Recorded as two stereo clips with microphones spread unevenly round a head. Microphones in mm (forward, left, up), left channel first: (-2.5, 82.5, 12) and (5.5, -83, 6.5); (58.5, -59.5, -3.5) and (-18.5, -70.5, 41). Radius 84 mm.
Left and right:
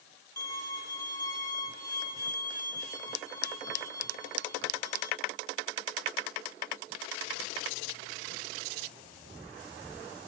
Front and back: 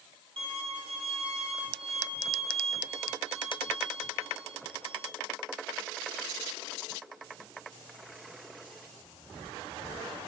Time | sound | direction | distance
0.4 | a violin | 165° left | 2.5 m